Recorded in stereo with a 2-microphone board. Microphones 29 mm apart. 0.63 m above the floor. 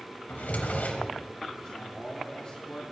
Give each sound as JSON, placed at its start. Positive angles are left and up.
{"t": 0.3, "sound": "a drawer", "side_deg": 80, "distance_m": 1.6}
{"t": 1.6, "sound": "a man speaking", "side_deg": 35, "distance_m": 1.5}